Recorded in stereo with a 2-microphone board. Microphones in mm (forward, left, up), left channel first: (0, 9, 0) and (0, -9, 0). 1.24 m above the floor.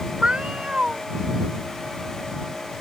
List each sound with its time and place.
0.2 s a cat meowing: 70° right (ahead or behind)